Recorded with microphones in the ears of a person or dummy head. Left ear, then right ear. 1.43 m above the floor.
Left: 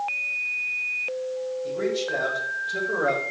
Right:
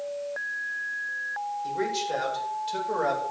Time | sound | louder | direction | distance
1.6 | a man speaking | left 2 dB | 70° right (ahead or behind) | 7 m